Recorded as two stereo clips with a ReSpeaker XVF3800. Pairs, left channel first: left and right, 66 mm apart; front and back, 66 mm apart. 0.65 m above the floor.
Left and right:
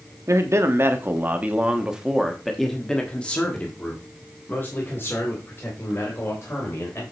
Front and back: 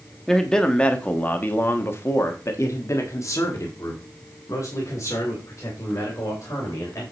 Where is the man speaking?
80° right, 1.3 m; by 7.0 s 40° left, 3 m.